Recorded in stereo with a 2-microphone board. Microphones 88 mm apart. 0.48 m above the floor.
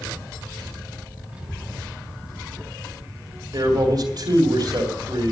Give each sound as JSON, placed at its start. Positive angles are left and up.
{"t": 1.3, "sound": "a child speaking", "side_deg": -15, "distance_m": 3.0}
{"t": 3.5, "sound": "a man speaking", "side_deg": -60, "distance_m": 2.5}